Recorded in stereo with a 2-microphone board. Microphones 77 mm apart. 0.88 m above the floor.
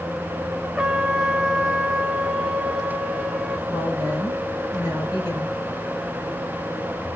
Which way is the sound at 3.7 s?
70° left (ahead or behind).